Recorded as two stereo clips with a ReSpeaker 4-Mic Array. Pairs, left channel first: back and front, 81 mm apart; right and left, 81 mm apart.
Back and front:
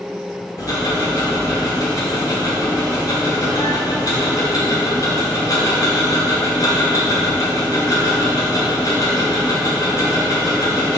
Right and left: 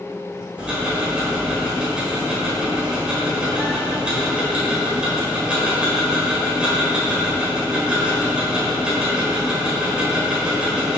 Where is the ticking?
165° left, 1.8 m.